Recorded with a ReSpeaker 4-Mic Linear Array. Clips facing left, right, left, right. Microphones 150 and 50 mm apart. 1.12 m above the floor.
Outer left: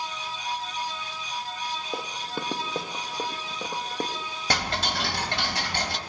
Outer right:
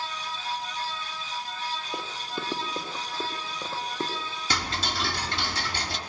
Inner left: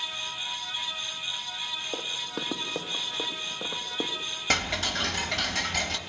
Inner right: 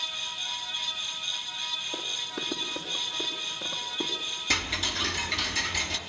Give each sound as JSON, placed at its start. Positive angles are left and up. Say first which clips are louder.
{"t": 1.9, "sound": "running footsteps", "louder": "outer left 2 dB, inner left 1 dB", "side_deg": 55, "distance_m": 2.5}
{"t": 4.5, "sound": "ticking", "louder": "outer left 3 dB, inner left 2 dB", "side_deg": 60, "distance_m": 3.0}